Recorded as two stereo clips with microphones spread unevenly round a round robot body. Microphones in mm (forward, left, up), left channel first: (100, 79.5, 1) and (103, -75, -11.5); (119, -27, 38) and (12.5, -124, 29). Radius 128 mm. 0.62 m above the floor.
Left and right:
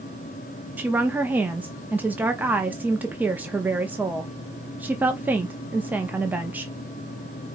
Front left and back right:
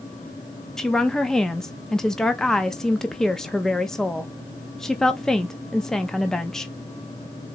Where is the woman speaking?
50° right, 0.5 m.